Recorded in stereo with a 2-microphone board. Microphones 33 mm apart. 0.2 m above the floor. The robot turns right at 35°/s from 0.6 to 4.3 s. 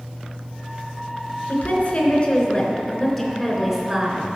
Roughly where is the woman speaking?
Behind left.